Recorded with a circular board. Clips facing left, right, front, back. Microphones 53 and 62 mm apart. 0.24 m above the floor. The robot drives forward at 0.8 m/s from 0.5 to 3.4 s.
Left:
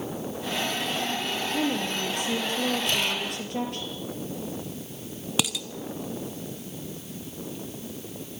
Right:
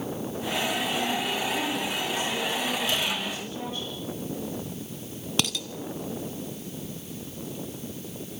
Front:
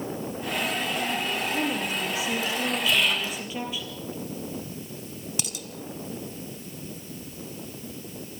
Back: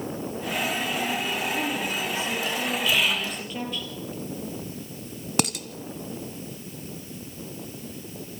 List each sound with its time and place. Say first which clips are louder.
1.5 s a woman speaking: left 2 dB, even; 70° left, 6 m; by 3.9 s 80° left, 5.5 m
2.9 s whispering: left 1 dB, back 1 dB; 90° left, 7.5 m; by 3.4 s 95° left, 7.5 m
5.4 s dishes clattering: even, back 10 dB; 175° left, 1.6 m